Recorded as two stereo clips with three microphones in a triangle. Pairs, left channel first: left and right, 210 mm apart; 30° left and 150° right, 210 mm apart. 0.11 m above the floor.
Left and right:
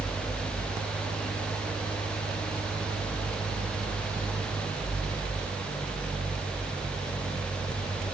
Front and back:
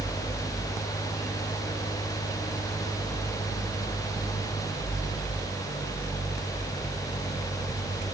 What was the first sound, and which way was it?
Only background noise.